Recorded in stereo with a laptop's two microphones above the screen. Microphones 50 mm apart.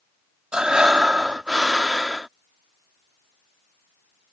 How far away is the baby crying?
No baby crying in this recording.